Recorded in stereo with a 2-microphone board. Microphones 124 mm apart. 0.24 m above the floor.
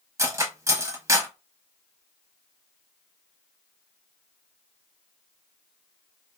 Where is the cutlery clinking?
25° right (ahead or behind), 0.7 m.